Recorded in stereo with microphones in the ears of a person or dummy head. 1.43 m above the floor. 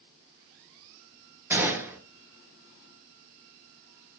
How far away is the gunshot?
About 0.6 m.